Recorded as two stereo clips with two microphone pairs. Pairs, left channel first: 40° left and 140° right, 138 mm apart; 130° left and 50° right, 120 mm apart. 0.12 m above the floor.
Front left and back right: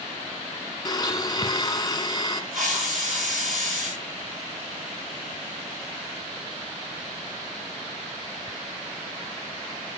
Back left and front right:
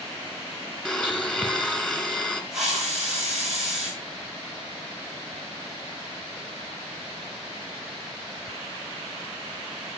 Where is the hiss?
135° right, 8 m.